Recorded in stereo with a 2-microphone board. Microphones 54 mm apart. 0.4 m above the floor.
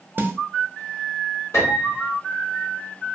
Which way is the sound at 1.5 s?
65° left (ahead or behind).